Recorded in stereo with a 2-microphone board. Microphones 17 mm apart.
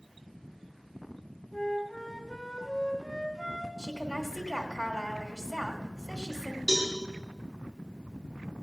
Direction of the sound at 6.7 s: 40° right (ahead or behind).